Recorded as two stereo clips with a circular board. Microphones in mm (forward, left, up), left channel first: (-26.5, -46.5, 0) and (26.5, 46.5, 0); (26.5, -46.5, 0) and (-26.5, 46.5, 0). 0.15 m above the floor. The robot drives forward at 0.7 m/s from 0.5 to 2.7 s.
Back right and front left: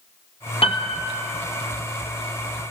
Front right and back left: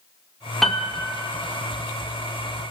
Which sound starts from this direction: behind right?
A piano, at 0.6 s.